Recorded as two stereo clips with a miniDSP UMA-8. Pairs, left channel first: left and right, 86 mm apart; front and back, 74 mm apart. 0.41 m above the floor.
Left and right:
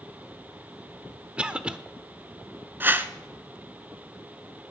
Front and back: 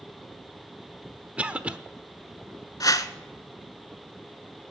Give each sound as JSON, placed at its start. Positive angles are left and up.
{"t": 1.4, "sound": "a cough", "azimuth_deg": -145, "distance_m": 0.8}
{"t": 2.8, "sound": "a whoosh", "azimuth_deg": -25, "distance_m": 0.7}